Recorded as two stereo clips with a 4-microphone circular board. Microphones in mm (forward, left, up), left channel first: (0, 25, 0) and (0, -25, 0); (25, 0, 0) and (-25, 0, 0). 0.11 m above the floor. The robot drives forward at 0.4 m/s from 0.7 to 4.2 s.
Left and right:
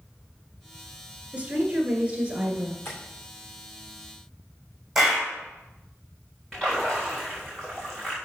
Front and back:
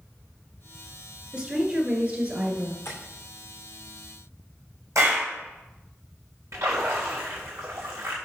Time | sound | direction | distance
1.3 | a woman speaking | 125° right | 1.8 m
2.9 | tapping | 45° left | 2.5 m
5.0 | a clap | 170° right | 4 m
6.5 | a splash | 175° left | 4 m